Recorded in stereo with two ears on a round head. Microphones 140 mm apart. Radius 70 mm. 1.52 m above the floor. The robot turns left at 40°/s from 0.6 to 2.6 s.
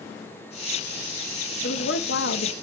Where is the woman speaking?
110° left, 1.0 m; by 2.5 s 75° left, 1.0 m.